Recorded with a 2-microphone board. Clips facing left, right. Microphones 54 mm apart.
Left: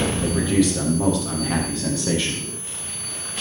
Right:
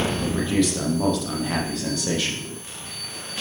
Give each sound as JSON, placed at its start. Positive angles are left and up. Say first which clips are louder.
{"t": 0.2, "sound": "a man speaking", "louder": "left 4 dB", "side_deg": 5, "distance_m": 5.5}